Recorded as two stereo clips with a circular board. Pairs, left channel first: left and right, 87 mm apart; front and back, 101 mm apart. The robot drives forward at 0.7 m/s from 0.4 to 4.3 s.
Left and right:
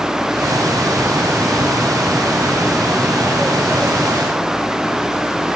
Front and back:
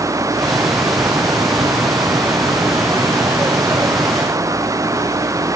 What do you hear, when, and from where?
Only background noise.